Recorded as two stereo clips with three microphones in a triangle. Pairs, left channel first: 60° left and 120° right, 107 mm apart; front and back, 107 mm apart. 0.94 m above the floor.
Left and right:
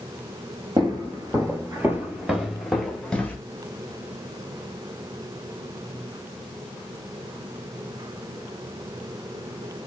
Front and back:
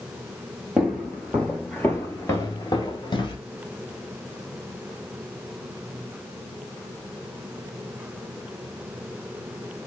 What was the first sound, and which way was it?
Footsteps, 95° right.